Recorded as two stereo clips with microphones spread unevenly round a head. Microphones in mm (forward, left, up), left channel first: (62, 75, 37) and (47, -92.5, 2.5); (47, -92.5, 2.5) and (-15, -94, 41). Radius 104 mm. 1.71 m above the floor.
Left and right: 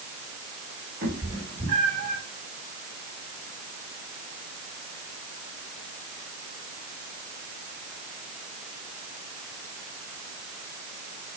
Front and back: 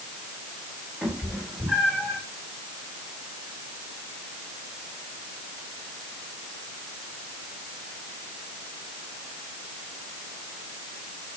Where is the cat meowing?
130° right, 2.5 m; by 2.2 s 145° right, 2.5 m.